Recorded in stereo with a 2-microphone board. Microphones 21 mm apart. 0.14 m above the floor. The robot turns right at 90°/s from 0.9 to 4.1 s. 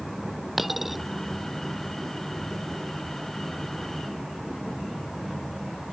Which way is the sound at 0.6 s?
10° right (ahead or behind).